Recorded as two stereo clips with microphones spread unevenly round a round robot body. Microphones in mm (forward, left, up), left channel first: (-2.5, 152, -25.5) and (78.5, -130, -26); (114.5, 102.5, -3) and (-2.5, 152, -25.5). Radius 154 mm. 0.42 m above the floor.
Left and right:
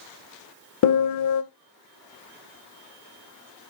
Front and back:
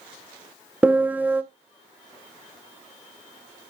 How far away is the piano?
About 1.0 m.